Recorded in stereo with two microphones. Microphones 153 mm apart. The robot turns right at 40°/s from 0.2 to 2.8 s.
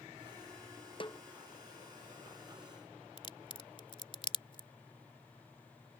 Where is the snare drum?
35° left (ahead or behind); by 1.2 s 25° left (ahead or behind).